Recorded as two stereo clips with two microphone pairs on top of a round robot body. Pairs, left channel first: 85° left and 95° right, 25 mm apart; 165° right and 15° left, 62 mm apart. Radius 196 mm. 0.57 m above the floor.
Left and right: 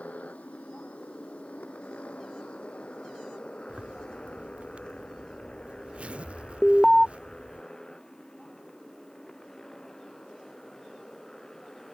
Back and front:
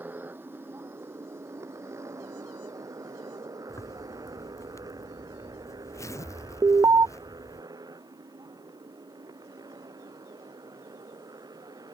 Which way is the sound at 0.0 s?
75° left.